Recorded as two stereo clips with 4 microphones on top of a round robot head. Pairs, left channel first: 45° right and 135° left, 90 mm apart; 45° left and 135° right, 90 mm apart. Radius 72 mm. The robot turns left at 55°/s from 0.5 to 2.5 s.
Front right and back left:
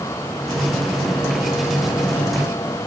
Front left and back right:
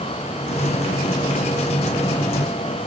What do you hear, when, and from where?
Only background noise.